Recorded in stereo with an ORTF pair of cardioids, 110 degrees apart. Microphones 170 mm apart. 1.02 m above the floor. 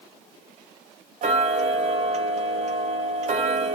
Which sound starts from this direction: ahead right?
Ticking, at 1.2 s.